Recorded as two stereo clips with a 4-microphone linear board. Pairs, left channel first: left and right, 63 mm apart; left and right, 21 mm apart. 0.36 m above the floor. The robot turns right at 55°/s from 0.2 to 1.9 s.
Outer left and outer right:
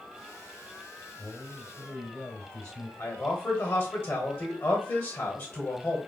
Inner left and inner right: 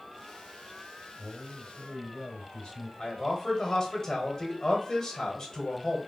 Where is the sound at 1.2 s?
50° left, 1.8 m; by 2.9 s 90° left, 1.8 m.